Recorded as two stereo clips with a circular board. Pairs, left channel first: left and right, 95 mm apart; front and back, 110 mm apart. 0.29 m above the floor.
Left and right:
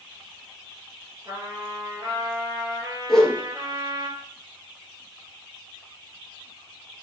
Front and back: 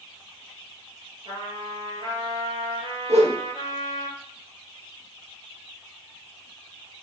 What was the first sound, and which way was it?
A trumpet, 135° right.